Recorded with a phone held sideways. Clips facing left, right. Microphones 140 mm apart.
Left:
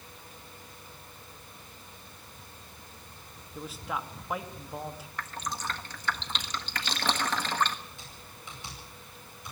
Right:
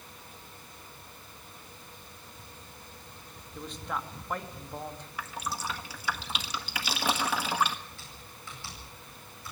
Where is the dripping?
10° right (ahead or behind), 1.4 m.